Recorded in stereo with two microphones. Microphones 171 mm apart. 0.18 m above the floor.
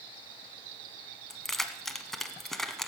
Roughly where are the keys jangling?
Centre.